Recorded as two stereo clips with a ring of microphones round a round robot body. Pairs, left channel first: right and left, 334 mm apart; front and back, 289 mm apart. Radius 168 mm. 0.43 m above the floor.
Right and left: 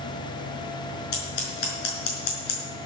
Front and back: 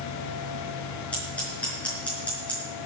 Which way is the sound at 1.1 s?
85° right.